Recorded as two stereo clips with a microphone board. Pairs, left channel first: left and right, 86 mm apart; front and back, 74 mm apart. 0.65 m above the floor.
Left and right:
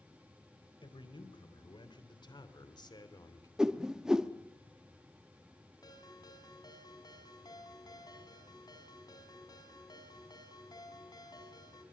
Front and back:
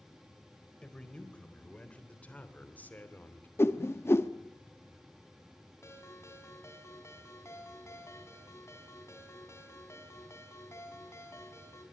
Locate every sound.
0.8 s a man speaking: 75° left, 3.5 m; by 3.5 s 60° left, 2.5 m
3.6 s a whoosh: 15° right, 1.1 m
5.8 s a ringtone: 50° left, 4 m